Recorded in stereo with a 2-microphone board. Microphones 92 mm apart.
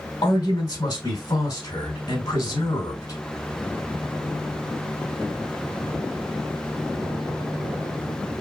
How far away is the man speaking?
About 3 m.